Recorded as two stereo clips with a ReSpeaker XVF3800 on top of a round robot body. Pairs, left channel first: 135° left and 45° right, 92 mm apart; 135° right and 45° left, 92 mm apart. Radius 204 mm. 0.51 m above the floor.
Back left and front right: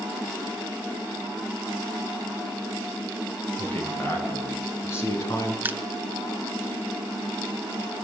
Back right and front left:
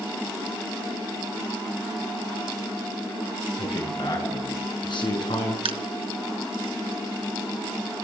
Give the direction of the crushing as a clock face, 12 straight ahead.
11 o'clock.